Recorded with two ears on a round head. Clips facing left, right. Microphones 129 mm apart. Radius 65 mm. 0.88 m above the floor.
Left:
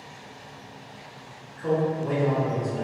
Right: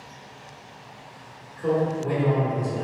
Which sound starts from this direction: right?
A man speaking, at 1.6 s.